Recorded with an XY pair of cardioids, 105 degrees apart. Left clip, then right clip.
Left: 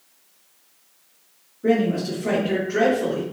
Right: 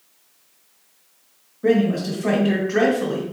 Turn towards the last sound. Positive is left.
turn(degrees=-70)